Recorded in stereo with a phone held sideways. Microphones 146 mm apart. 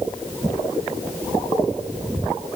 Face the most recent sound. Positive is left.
No sound to turn to.